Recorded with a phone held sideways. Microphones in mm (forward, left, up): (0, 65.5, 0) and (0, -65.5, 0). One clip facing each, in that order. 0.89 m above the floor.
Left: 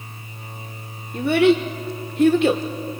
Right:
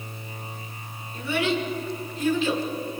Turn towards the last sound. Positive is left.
turn(degrees=65)  # may be behind; listen again after turning